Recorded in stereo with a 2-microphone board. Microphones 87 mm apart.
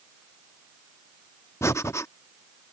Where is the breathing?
35° left (ahead or behind).